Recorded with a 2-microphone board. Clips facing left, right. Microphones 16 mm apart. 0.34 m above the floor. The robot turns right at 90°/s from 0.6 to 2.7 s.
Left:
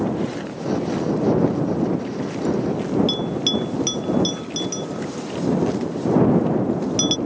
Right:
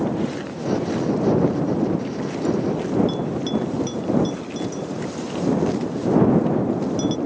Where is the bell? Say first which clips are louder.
Left 2 dB; 60° left (ahead or behind).